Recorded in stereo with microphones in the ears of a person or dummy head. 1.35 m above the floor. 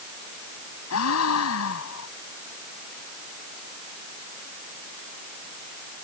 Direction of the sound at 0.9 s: 85° left.